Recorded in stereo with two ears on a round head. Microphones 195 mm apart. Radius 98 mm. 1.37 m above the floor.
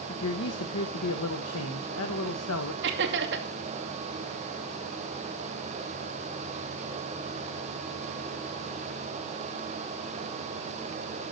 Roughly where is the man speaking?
Left.